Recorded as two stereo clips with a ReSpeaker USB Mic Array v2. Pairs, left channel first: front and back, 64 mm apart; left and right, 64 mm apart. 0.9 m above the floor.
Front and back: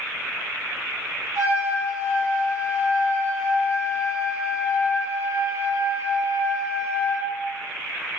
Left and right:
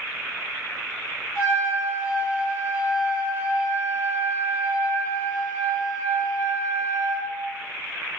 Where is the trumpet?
145° right, 0.9 m.